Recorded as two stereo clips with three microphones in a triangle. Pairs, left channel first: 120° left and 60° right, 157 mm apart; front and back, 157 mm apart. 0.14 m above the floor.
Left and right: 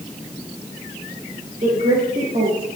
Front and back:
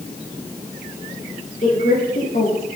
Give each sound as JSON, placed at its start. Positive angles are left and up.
{"t": 1.6, "sound": "a woman speaking", "azimuth_deg": -25, "distance_m": 5.0}